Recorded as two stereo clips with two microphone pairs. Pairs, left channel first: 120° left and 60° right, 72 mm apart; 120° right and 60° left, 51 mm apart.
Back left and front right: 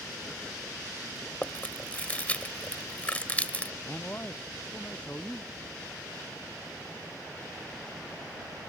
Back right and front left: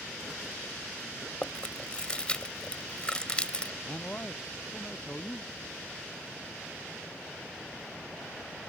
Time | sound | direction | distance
1.4 | chewing | straight behind | ?
3.8 | a man speaking | straight behind | ?